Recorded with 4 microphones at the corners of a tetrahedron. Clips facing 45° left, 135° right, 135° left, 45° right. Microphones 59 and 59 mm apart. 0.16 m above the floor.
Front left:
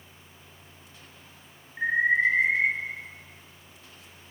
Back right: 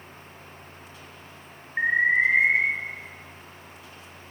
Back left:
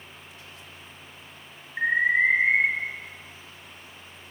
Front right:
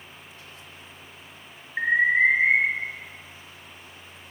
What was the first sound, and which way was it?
An alarm, 110° right.